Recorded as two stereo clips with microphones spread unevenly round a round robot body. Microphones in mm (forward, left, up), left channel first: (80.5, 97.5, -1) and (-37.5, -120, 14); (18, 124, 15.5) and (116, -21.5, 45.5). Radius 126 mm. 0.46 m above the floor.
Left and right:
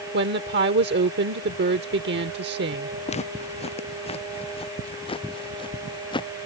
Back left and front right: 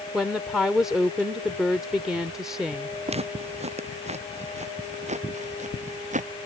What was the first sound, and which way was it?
A woman speaking, 155° right.